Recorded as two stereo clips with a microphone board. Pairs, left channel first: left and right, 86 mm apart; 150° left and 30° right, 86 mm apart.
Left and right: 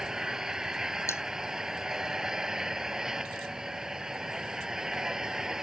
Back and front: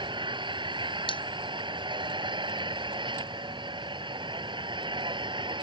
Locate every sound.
0.0 s an engine running: 5° right
1.1 s cutlery clinking: 145° left